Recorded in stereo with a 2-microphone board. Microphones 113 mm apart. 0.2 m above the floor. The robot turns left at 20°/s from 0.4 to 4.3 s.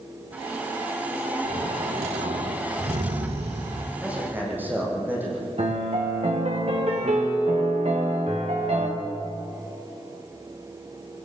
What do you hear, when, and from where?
1.4 s snoring: 85° right, 6.5 m; by 3.9 s 135° right, 6.5 m
4.0 s a man speaking: 10° right (ahead or behind), 9.5 m; by 5.5 s 15° right (ahead or behind), 9.5 m
5.6 s a piano: 65° right (ahead or behind), 6 m